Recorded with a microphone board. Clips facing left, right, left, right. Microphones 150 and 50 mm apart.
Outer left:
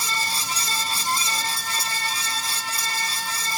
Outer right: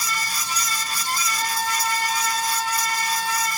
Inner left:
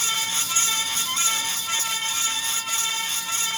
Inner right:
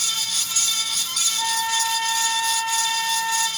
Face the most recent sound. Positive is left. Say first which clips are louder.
# outer right 5 dB, inner right 5 dB
turn(degrees=-45)  # may be behind; listen again after turning